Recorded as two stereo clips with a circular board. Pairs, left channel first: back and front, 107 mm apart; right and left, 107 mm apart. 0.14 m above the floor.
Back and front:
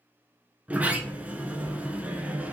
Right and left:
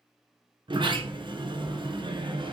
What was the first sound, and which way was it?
A sliding door, 70° left.